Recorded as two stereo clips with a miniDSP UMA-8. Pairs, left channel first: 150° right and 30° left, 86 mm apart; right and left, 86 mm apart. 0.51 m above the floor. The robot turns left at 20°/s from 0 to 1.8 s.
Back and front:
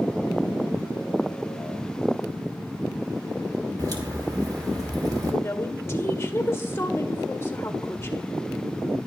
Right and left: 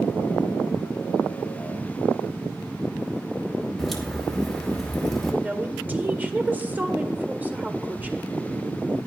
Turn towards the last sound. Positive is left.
turn(degrees=155)